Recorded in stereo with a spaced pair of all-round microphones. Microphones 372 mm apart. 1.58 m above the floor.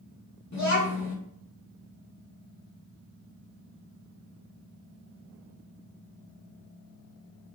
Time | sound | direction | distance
0.5 | a child speaking | 45° left (ahead or behind) | 0.7 m